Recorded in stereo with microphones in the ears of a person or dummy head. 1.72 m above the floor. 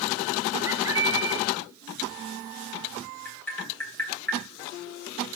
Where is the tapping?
5° left (ahead or behind), 3 m.